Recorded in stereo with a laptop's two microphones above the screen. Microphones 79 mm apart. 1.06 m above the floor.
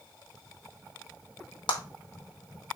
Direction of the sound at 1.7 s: 85° left.